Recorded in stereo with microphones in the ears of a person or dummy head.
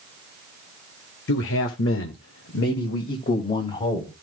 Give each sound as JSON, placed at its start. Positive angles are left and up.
{"t": 1.3, "sound": "a man speaking", "side_deg": 65, "distance_m": 1.6}